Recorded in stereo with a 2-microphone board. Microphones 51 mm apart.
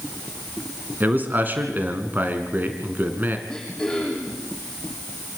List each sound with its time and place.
1.0 s a man speaking: 35° right (ahead or behind), 2 m
3.5 s throat clearing: 10° left (ahead or behind), 7.5 m